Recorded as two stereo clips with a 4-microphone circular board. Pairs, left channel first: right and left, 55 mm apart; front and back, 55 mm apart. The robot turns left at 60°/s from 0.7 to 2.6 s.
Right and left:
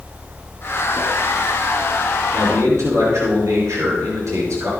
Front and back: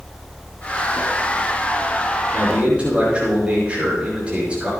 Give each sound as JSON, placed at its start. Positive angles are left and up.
{"t": 2.3, "sound": "a man speaking", "azimuth_deg": 130, "distance_m": 5.5}